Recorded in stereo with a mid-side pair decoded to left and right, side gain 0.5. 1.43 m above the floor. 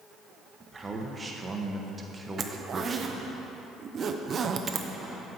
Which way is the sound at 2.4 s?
45° right.